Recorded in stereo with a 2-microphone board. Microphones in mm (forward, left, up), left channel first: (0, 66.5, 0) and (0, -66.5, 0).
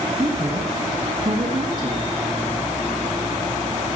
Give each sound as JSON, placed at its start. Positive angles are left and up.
{"t": 0.2, "sound": "a woman speaking", "side_deg": -35, "distance_m": 3.0}